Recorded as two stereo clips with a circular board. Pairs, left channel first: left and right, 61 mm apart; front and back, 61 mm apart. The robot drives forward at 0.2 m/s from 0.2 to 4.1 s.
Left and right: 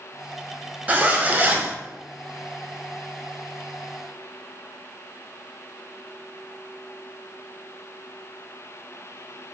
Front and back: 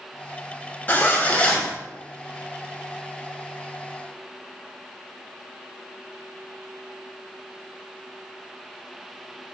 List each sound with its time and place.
0.9 s a zipper: 40° right, 0.6 m; by 1.8 s 60° right, 0.5 m